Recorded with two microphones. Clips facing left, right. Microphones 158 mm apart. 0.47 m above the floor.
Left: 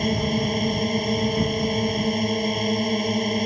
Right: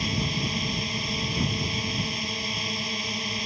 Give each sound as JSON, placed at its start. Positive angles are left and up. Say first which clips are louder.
{"t": 0.0, "sound": "a drone", "louder": "left 7 dB", "side_deg": 50}